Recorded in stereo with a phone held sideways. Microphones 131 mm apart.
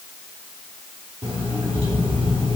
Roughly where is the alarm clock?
Right.